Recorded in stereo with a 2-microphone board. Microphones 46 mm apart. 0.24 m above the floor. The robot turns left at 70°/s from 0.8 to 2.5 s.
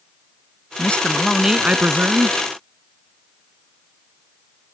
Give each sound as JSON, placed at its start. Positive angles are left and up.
{"t": 0.8, "sound": "a man speaking", "azimuth_deg": 35}